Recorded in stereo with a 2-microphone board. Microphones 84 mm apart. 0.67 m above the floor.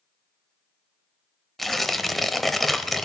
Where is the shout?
I don't hear a shout.